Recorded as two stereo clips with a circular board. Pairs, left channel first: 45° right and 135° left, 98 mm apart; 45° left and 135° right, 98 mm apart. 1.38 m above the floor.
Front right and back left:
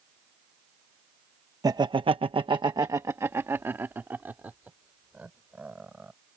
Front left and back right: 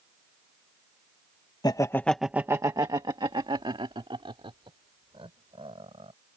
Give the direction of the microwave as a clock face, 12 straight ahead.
I don't hear a microwave.